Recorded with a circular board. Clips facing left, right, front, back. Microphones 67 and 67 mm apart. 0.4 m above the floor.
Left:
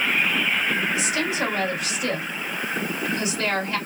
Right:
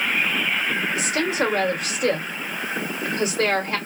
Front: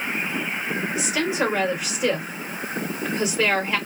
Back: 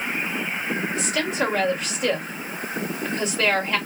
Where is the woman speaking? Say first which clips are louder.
Right 2 dB, front 3 dB; 80° right, 1.6 m.